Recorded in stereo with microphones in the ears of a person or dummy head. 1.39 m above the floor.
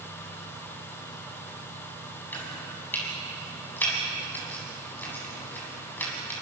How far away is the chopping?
About 9 m.